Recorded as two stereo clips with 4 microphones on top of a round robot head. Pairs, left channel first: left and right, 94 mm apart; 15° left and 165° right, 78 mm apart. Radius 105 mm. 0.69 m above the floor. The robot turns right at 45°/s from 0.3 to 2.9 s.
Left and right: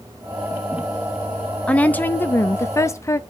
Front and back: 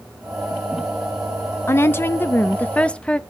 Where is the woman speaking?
25° left, 0.7 m; by 3.2 s 80° left, 0.7 m.